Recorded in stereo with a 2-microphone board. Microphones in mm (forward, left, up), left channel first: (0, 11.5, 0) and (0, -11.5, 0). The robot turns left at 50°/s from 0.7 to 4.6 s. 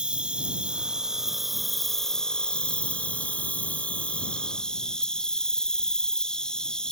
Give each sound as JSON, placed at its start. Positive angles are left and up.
{"t": 0.0, "sound": "an insect", "azimuth_deg": -130}